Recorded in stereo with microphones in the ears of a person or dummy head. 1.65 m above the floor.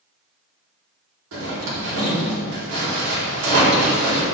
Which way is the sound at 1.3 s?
75° right (ahead or behind).